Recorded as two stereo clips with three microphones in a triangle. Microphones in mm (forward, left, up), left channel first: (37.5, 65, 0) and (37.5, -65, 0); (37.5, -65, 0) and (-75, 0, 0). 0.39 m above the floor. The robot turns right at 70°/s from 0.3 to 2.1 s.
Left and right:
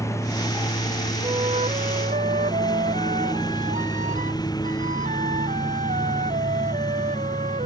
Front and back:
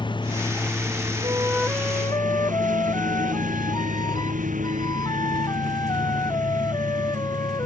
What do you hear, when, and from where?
0.0 s a lawn mower: 20° left; by 7.7 s 150° left
1.2 s a flute: 150° right; by 7.7 s 90° right